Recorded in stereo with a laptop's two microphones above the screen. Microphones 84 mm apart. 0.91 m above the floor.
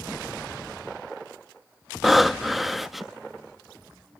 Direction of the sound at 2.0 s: Centre (ahead or behind).